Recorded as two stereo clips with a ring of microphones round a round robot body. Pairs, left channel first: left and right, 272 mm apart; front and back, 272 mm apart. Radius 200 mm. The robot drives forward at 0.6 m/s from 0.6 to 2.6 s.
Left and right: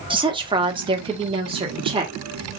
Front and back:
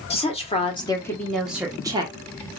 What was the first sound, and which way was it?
A woman speaking, 40° right.